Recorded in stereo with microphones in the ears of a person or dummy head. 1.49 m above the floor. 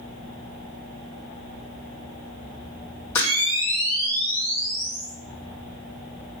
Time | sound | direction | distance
3.1 | a camera shutter | 15° left (ahead or behind) | 1.3 m